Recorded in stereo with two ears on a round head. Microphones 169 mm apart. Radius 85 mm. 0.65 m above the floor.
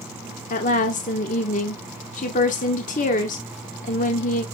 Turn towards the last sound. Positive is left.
turn(degrees=45)  # may be behind; listen again after turning